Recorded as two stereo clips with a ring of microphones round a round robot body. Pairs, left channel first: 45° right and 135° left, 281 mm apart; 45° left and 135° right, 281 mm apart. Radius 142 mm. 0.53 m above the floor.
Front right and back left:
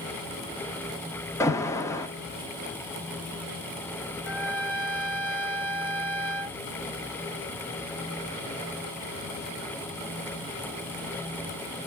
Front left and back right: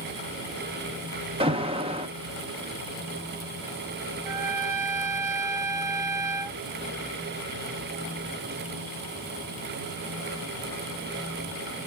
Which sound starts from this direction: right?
An alarm, at 1.4 s.